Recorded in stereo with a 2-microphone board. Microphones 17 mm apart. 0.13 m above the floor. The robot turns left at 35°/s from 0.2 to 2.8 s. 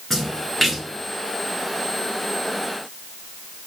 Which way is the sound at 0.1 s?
15° left (ahead or behind).